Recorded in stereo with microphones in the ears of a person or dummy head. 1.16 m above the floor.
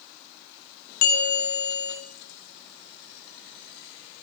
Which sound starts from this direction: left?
A bell, at 1.0 s.